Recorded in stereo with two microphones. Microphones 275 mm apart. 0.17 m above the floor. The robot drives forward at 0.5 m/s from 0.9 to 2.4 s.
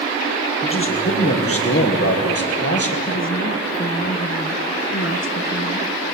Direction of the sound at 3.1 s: 50° left (ahead or behind).